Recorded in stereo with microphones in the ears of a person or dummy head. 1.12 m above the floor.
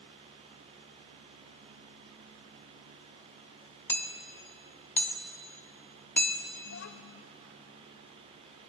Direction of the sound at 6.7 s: 80° left.